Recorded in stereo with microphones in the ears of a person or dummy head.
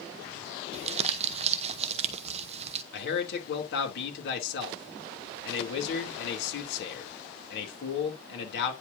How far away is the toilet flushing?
No toilet flushing in this recording.